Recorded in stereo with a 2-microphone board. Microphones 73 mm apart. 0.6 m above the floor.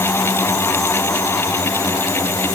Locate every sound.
Only background noise.